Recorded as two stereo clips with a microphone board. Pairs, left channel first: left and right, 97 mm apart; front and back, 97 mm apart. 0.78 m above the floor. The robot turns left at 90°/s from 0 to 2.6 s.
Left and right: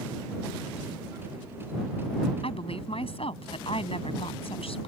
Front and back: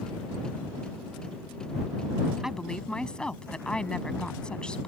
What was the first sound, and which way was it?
A woman speaking, 95° left.